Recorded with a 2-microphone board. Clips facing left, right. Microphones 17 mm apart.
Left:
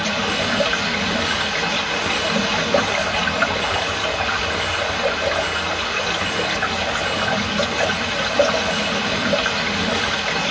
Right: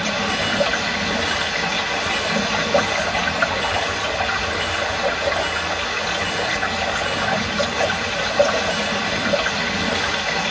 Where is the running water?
55° left (ahead or behind), 1.5 m.